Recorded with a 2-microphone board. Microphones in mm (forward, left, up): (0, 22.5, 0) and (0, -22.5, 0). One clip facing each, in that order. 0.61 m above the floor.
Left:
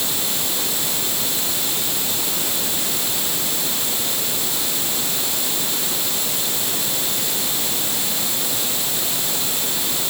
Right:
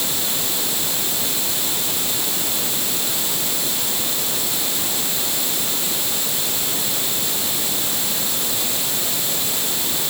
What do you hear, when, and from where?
Only background noise.